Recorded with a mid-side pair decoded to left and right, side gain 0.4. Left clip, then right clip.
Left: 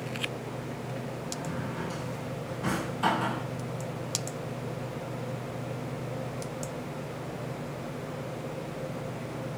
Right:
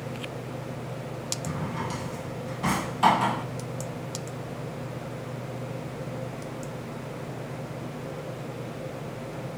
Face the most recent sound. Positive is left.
turn(degrees=-65)